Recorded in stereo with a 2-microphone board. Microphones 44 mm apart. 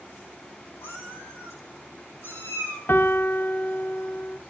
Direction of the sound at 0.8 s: 85° left.